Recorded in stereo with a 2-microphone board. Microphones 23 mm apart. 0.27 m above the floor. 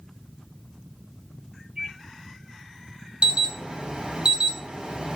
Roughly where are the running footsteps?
I don't hear running footsteps.